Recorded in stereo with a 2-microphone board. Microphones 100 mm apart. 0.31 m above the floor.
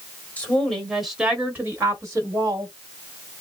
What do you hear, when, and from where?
0.4 s a woman speaking: 15° left (ahead or behind), 1.3 m; by 2.7 s 45° right (ahead or behind), 1.5 m